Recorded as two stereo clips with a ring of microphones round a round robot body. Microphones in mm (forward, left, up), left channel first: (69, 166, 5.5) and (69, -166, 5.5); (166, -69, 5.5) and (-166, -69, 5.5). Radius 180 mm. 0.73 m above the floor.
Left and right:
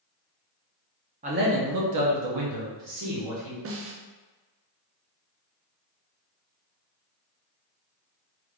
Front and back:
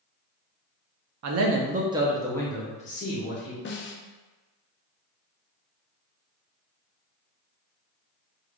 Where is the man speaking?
155° right, 0.8 m; by 3.5 s 60° right, 1.6 m.